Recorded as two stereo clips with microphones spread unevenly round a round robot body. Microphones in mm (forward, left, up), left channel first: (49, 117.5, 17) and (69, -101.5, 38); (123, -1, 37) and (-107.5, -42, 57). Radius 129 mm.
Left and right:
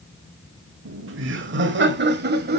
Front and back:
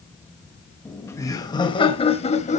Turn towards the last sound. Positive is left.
turn(degrees=-45)